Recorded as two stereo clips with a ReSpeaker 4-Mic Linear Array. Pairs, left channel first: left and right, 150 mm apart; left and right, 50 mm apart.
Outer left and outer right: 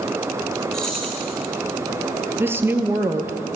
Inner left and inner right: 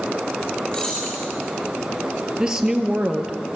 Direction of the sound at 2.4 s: 15° right (ahead or behind).